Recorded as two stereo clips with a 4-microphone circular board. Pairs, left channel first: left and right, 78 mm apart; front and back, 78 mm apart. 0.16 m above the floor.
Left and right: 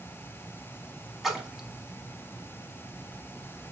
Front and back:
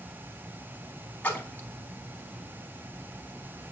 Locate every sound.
1.2 s a splash: 10° right, 0.7 m